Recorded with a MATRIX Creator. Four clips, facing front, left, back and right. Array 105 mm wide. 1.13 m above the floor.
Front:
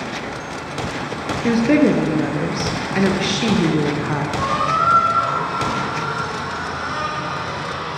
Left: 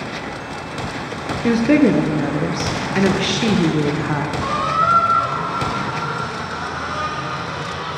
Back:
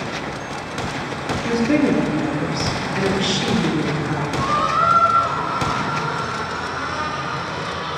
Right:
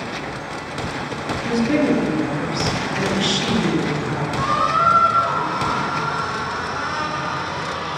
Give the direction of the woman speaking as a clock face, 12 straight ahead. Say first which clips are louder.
Left 4 dB, front 3 dB; 10 o'clock.